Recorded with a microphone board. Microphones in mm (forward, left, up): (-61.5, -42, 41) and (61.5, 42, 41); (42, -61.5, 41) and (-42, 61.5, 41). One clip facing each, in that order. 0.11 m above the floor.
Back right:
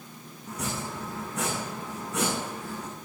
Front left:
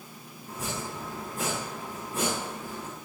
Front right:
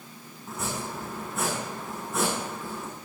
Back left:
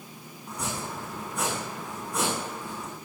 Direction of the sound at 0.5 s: 140° right.